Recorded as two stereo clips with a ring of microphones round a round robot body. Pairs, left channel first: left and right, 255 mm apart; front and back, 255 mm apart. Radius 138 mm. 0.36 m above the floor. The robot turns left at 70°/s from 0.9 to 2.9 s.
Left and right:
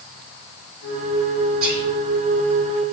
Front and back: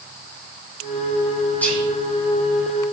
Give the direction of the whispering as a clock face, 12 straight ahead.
3 o'clock.